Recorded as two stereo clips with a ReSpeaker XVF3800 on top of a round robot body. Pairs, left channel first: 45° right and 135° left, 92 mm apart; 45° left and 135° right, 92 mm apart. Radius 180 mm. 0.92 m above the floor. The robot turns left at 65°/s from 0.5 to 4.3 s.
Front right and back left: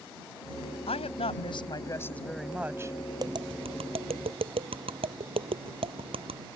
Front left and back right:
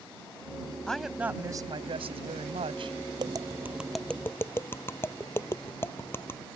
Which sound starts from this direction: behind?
Tapping, at 3.2 s.